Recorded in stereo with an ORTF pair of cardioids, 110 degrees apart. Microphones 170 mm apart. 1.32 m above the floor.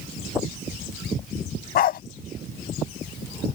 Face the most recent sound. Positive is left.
turn(degrees=60)